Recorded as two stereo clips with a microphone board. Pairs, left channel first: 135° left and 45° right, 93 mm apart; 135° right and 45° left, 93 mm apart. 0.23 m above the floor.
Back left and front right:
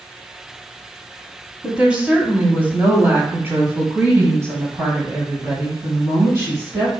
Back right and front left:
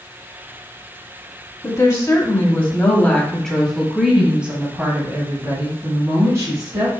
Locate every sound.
1.6 s a woman speaking: 115° right, 1.7 m; by 7.0 s 10° left, 2.5 m